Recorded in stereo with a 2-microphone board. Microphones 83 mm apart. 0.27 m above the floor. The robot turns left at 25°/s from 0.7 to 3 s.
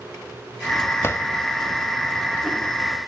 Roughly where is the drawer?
Left.